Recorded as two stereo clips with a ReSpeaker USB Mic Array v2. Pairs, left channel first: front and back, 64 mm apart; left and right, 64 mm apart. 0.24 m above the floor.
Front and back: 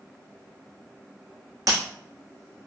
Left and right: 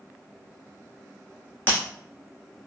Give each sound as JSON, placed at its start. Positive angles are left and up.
{"t": 1.7, "sound": "breaking glass", "azimuth_deg": 150, "distance_m": 1.5}